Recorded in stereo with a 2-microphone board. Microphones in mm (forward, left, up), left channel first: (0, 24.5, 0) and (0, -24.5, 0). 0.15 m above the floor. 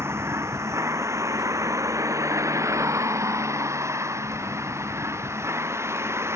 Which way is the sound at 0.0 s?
60° right (ahead or behind).